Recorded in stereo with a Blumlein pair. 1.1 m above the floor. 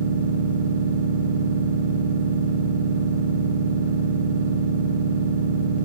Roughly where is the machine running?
Ahead right.